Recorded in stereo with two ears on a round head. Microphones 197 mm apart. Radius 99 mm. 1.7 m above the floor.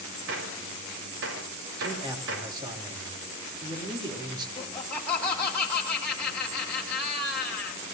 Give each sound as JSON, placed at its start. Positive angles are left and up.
{"t": 0.3, "sound": "a gunshot", "side_deg": -65, "distance_m": 4.5}
{"t": 1.8, "sound": "a man speaking", "side_deg": -20, "distance_m": 3.0}
{"t": 4.6, "sound": "laughter", "side_deg": 5, "distance_m": 1.6}